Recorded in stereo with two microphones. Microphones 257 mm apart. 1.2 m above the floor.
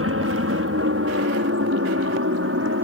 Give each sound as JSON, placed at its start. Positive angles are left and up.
{"t": 0.0, "sound": "an aircraft", "side_deg": -60}